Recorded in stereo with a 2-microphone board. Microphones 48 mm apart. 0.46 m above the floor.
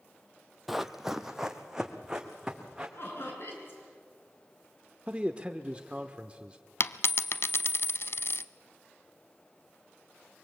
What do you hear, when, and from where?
0.7 s running footsteps: 5° right (ahead or behind), 0.8 m; by 2.9 s 15° right (ahead or behind), 2.5 m
3.0 s laughter: 60° left (ahead or behind), 6.5 m
5.1 s a man speaking: 25° right (ahead or behind), 0.8 m
6.8 s a dropped coin: 55° left (ahead or behind), 0.5 m